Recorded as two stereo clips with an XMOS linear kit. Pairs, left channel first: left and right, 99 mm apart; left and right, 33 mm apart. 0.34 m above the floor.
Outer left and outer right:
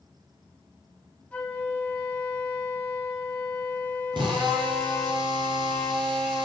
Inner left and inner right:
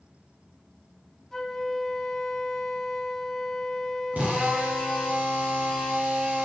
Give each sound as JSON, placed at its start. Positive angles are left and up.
{"t": 1.3, "sound": "a flute", "side_deg": 15, "distance_m": 2.0}
{"t": 4.1, "sound": "a drill", "side_deg": -55, "distance_m": 5.5}